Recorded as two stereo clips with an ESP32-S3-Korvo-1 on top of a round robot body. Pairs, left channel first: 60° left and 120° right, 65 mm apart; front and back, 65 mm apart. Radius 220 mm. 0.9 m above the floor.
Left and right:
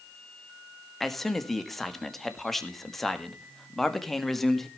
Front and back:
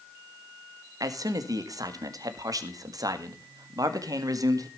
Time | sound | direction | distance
1.0 | a man speaking | 145° left | 2.0 m